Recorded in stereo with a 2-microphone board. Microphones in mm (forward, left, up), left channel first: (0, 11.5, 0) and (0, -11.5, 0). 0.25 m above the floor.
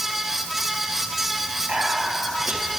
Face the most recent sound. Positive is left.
turn(degrees=-55)  # may be behind; listen again after turning